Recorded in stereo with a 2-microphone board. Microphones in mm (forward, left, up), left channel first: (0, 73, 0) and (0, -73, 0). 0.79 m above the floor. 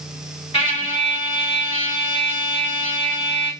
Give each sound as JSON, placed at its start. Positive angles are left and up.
{"t": 0.5, "sound": "a trumpet", "side_deg": 40, "distance_m": 1.8}